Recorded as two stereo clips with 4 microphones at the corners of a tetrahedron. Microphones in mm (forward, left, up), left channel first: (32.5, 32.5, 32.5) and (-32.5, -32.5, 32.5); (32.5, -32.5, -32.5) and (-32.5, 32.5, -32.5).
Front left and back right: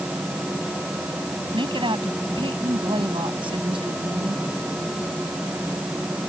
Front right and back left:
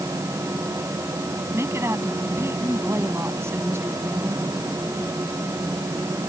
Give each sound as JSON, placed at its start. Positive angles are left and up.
{"t": 1.5, "sound": "a woman speaking", "azimuth_deg": -165}